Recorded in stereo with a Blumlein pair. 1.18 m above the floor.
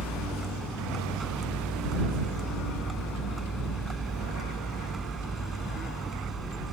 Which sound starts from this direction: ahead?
A vehicle, at 0.0 s.